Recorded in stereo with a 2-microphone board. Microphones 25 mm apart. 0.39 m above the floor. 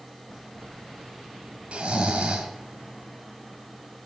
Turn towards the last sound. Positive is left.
turn(degrees=-55)  # may be behind; listen again after turning